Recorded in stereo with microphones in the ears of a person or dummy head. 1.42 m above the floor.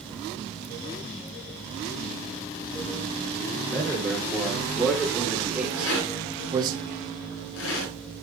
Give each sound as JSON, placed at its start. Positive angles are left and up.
{"t": 3.7, "sound": "a man speaking", "side_deg": 10, "distance_m": 4.0}
{"t": 5.8, "sound": "a rattle", "side_deg": 80, "distance_m": 6.5}